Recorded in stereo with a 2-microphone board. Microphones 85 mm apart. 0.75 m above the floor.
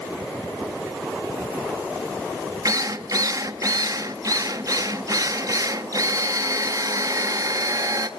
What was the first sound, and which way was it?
A drill, 45° right (ahead or behind).